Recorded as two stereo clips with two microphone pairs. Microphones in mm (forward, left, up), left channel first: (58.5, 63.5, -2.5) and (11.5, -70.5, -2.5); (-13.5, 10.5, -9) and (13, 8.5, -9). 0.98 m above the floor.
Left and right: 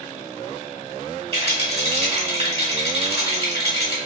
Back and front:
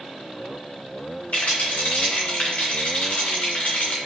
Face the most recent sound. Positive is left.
turn(degrees=-150)